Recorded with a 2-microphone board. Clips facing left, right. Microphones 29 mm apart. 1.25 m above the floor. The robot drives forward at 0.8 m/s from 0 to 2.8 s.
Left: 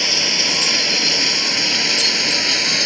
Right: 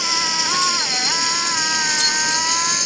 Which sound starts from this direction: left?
Running water, at 0.0 s.